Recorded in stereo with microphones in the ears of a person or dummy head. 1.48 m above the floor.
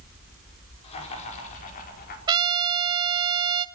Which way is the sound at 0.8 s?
35° left (ahead or behind).